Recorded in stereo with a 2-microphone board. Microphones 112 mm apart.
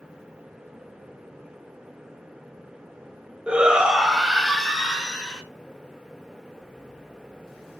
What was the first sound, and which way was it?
A shout, 10° right (ahead or behind).